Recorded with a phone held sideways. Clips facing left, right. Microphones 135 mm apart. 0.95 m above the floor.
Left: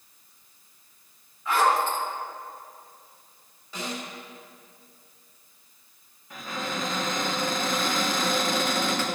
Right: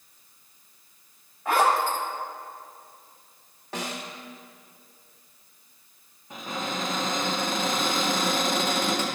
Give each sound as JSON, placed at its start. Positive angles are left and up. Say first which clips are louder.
{"t": 1.4, "sound": "a zipper", "louder": "right 1 dB", "side_deg": -55, "distance_m": 1.8}
{"t": 3.7, "sound": "a snare drum", "louder": "right 1 dB", "side_deg": -80, "distance_m": 1.9}
{"t": 6.3, "sound": "a cupboard door", "louder": "right 1 dB", "side_deg": -25, "distance_m": 2.0}